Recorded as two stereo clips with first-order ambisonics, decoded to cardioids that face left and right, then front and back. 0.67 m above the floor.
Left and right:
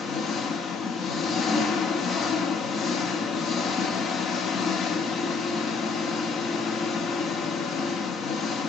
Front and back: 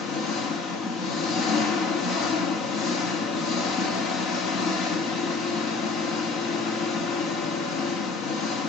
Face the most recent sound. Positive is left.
turn(degrees=35)